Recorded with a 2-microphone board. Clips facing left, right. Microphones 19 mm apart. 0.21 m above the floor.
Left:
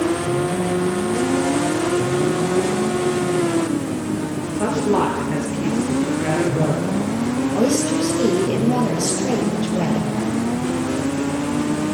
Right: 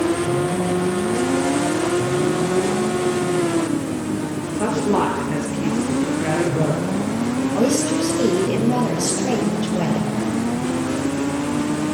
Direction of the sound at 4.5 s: 40° right (ahead or behind).